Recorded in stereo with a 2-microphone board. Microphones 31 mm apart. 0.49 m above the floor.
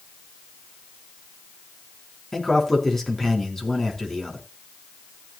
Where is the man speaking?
15° left (ahead or behind), 4 m.